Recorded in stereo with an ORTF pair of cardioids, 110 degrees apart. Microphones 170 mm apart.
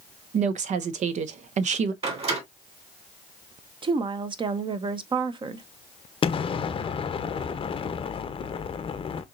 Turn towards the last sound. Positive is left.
turn(degrees=30)